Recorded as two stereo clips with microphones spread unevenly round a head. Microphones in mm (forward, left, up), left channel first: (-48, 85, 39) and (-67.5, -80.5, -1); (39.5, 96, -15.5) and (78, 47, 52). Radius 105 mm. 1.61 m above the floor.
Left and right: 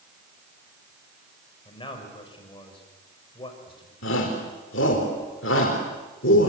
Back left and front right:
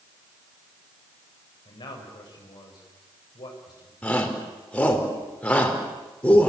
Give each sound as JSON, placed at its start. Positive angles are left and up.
{"t": 1.6, "sound": "a man speaking", "azimuth_deg": 140, "distance_m": 7.0}
{"t": 4.0, "sound": "a shout", "azimuth_deg": 50, "distance_m": 4.5}